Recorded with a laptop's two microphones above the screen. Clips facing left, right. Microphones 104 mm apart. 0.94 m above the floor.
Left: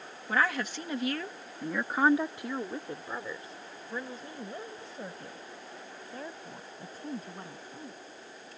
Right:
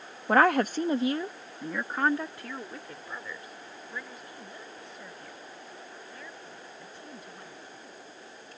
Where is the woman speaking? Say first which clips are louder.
Right 8 dB; 65° right (ahead or behind); by 8.0 s 40° left (ahead or behind).